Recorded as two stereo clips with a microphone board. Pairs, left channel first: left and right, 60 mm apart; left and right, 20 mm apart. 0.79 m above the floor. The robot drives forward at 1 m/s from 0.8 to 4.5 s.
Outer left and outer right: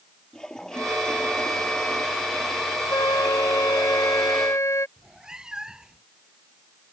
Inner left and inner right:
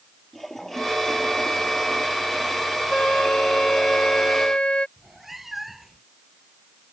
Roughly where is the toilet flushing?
Centre.